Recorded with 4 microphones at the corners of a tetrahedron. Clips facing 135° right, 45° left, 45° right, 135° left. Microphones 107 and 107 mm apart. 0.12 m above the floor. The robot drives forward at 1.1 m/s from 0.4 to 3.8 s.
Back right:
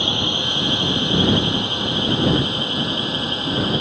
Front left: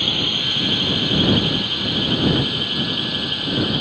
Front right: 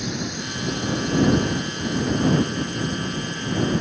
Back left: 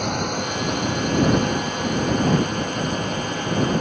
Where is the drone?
160° left; by 3.8 s 165° left.